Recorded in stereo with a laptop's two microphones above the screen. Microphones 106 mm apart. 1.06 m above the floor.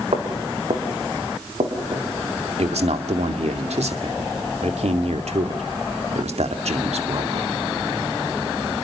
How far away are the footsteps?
About 4.5 m.